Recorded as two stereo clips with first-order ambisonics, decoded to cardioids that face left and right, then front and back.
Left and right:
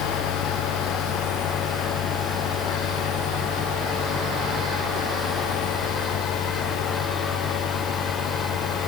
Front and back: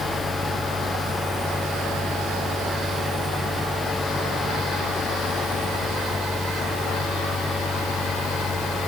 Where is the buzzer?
I don't hear a buzzer.